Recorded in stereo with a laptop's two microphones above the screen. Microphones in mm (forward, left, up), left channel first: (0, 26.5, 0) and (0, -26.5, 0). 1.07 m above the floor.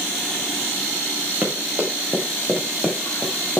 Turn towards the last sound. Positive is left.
turn(degrees=-10)  # may be behind; listen again after turning